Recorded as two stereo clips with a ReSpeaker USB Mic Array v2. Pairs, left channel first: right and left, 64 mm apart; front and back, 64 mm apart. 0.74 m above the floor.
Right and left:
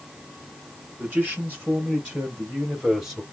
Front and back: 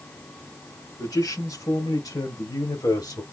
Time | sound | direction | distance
1.0 | a man speaking | 25° left | 5 m